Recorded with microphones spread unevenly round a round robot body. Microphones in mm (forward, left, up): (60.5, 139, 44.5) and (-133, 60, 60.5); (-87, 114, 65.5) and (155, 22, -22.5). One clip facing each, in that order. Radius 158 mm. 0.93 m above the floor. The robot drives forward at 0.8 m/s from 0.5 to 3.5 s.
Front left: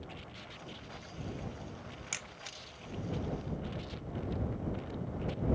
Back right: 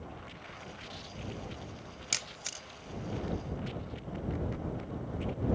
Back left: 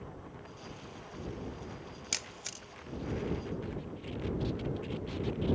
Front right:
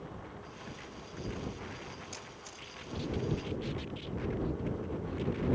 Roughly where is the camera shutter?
Behind left.